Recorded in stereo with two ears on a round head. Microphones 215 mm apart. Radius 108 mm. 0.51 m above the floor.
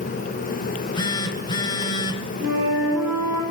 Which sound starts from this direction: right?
A flute, at 2.4 s.